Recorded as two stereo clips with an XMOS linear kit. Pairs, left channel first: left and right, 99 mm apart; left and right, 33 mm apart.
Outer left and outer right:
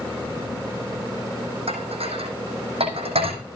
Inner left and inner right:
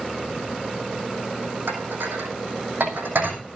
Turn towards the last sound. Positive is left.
turn(degrees=-75)  # may be behind; listen again after turning